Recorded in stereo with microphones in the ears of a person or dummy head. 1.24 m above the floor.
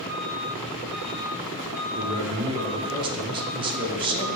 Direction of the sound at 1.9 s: 25° right (ahead or behind).